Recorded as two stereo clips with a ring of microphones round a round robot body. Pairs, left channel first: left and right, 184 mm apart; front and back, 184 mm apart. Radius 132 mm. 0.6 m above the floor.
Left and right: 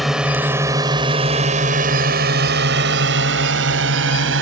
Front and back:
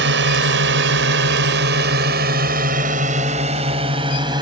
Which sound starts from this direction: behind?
A drone, at 0.0 s.